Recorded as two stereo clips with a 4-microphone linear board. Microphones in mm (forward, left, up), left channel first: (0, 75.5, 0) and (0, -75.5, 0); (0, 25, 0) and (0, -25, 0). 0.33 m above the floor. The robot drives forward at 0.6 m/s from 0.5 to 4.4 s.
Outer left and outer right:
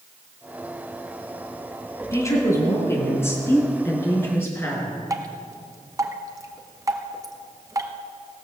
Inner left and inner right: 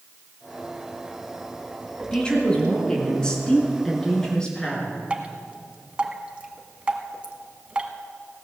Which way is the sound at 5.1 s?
25° right (ahead or behind).